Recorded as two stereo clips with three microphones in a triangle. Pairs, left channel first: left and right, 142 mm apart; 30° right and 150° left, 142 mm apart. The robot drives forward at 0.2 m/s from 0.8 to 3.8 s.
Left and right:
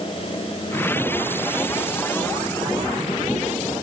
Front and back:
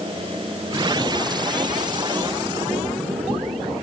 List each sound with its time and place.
Only background noise.